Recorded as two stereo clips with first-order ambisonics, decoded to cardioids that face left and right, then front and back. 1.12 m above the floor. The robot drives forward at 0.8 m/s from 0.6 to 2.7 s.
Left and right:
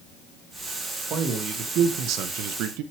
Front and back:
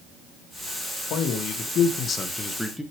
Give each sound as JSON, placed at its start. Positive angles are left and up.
{"t": 1.1, "sound": "a man speaking", "azimuth_deg": -35, "distance_m": 1.7}